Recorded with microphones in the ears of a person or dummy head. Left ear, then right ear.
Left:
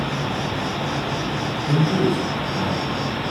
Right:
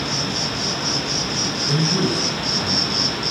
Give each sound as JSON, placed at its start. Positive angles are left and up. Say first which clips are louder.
{"t": 0.0, "sound": "an insect", "louder": "right 2 dB", "side_deg": -35, "distance_m": 0.8}
{"t": 1.7, "sound": "a man speaking", "louder": "left 2 dB", "side_deg": 15, "distance_m": 1.3}